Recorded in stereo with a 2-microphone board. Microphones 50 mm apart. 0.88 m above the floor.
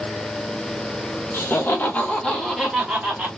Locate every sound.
1.3 s laughter: 45° left (ahead or behind), 1.0 m; by 3.3 s 20° right (ahead or behind), 1.2 m